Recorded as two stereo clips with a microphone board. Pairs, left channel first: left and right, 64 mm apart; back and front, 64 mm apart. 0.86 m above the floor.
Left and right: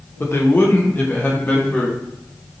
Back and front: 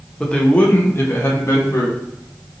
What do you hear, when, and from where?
0.2 s a man speaking: 105° left, 0.9 m; by 1.9 s 150° left, 1.6 m